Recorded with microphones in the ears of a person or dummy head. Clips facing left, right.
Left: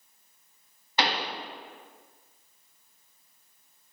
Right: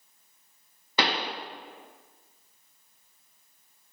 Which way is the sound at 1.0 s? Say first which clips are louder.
Right 1 dB; 70° right (ahead or behind).